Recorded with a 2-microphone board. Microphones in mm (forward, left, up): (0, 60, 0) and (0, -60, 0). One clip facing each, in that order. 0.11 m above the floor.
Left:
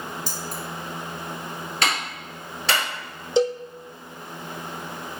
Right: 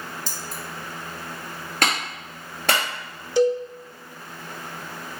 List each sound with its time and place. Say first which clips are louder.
0.3 s keys jangling: left 3 dB; 45° left (ahead or behind), 1.7 m
1.8 s a clap: right 2 dB; 50° right (ahead or behind), 2.0 m
3.4 s a cowbell: right 2 dB; 25° left (ahead or behind), 0.7 m